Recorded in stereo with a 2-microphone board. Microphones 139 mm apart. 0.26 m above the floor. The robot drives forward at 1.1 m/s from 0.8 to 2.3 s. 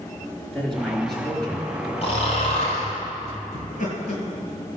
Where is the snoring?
45° left (ahead or behind), 5 m.